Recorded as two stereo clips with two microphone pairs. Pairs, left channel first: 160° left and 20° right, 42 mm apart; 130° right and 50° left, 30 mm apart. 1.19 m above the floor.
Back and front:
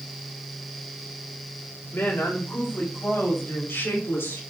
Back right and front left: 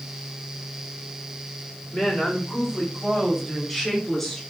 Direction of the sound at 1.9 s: Straight behind.